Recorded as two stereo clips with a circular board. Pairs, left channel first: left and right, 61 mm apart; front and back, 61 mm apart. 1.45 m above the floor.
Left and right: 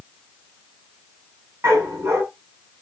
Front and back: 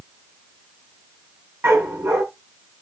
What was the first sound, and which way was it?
A dog barking, 135° right.